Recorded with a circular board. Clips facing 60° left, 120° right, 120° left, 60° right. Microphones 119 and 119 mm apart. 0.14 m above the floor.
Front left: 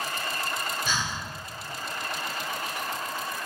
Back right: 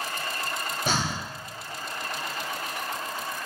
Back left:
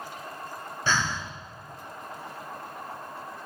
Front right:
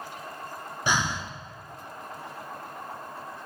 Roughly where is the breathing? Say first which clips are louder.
Back right 3 dB, front right 1 dB; behind right.